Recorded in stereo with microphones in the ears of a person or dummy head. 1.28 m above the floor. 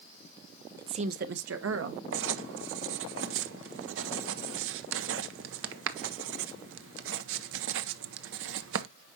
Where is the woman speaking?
15° right (ahead or behind), 0.8 m; by 2.0 s 85° right, 1.7 m.